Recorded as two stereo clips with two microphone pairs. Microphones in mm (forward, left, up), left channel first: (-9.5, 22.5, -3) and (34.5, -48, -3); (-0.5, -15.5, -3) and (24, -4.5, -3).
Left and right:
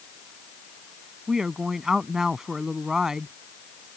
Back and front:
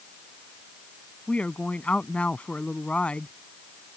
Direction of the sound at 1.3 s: 140° right.